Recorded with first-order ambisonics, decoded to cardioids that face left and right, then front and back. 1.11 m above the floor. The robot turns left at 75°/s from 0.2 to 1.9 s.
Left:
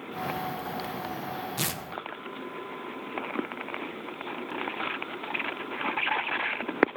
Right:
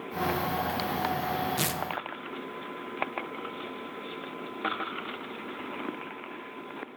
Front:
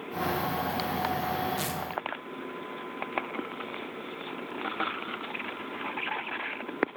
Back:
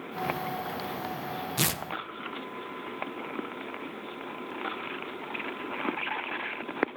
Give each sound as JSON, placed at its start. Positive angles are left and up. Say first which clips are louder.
{"t": 1.6, "sound": "tearing paper", "louder": "right 2 dB, back 3 dB", "azimuth_deg": -175, "distance_m": 0.8}